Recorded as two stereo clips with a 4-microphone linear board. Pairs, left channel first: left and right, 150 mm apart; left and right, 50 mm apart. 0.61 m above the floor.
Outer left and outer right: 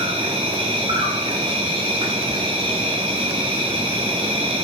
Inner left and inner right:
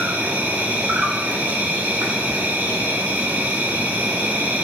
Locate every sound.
0.0 s an insect: 35° right (ahead or behind), 1.8 m